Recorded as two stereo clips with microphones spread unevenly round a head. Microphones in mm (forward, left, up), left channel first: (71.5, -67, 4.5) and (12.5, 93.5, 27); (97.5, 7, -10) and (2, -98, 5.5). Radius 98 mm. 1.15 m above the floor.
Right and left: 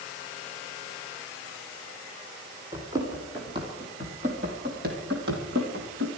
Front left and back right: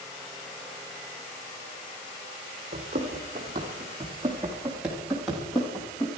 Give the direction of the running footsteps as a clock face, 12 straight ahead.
6 o'clock.